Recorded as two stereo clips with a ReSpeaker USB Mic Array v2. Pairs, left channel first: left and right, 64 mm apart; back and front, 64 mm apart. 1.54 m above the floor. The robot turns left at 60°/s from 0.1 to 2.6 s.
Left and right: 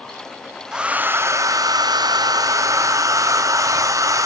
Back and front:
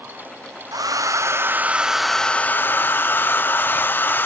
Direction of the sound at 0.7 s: 10° right.